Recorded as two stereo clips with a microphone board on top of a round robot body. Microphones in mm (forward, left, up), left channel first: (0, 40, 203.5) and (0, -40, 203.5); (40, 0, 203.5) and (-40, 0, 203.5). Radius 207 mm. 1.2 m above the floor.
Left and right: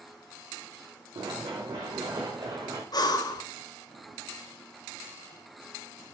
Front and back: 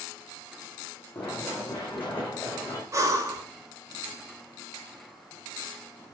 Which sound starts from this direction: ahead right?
Running footsteps, at 1.1 s.